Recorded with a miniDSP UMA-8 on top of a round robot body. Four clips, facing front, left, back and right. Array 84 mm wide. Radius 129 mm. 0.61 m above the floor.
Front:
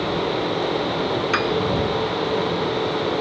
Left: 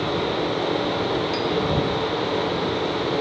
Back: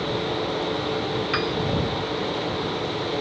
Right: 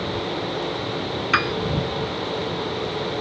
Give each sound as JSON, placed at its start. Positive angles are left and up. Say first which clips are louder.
{"t": 1.3, "sound": "a piano", "louder": "right 2 dB, front 5 dB", "azimuth_deg": -75}